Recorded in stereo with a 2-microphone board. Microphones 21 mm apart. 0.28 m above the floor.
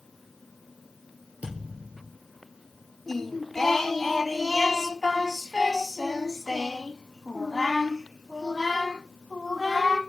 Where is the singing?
15° left (ahead or behind), 1.1 m.